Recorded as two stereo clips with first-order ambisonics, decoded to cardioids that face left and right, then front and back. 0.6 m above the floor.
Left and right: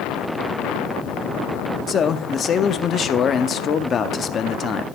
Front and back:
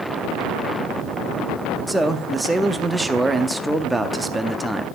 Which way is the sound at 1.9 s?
110° left.